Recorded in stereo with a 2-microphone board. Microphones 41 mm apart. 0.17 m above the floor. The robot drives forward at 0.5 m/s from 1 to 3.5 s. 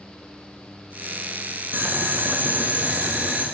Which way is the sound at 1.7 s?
55° right (ahead or behind).